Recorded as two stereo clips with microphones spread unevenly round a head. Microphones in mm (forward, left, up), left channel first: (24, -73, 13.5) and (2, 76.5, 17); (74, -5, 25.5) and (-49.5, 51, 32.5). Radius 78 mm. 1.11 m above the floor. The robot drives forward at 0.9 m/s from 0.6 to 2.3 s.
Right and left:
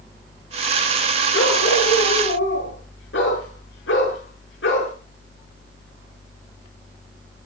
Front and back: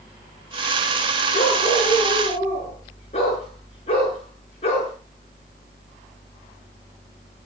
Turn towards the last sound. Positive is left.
turn(degrees=-80)